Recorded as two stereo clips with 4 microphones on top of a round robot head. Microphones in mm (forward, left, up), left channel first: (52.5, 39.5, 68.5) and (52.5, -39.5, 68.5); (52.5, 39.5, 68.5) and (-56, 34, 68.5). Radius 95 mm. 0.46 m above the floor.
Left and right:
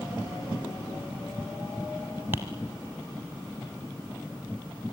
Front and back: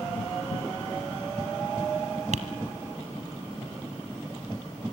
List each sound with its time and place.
2.3 s tapping: 160° right, 1.2 m